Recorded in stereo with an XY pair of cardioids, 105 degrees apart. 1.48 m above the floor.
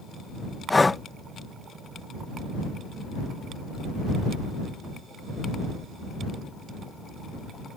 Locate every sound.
0.7 s breathing: 20° left